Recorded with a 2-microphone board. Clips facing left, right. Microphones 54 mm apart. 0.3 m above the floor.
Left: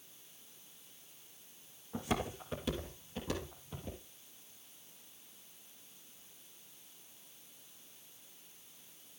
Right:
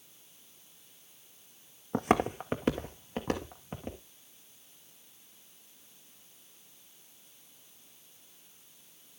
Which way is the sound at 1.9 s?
60° right (ahead or behind).